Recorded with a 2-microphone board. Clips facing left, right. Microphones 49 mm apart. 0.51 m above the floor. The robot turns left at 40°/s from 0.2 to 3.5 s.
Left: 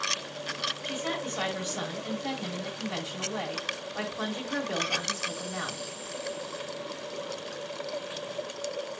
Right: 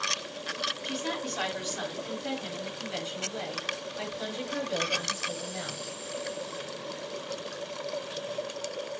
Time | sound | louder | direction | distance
0.8 | a woman speaking | left 1 dB | 175° left | 5 m